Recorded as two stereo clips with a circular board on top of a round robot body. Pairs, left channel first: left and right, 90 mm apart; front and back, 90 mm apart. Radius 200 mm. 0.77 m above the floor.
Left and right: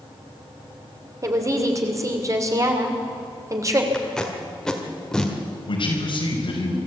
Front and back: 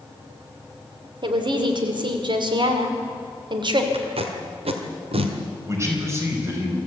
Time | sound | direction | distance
1.2 | a woman speaking | 145° right | 2.5 m
3.9 | tape being pulled | 175° left | 1.7 m
5.7 | a man speaking | 120° left | 5 m